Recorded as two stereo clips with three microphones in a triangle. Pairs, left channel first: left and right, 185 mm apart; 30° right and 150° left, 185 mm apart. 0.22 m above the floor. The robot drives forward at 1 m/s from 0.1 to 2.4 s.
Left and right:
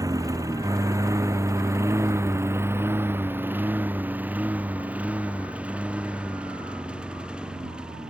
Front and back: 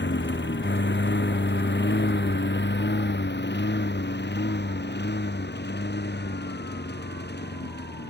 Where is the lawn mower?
20° right; by 8.1 s 5° right.